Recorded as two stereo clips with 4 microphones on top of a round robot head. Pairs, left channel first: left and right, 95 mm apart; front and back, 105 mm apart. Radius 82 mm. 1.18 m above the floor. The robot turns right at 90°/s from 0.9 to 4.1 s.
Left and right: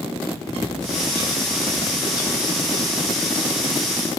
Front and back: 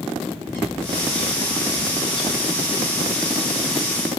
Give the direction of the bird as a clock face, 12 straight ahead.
2 o'clock.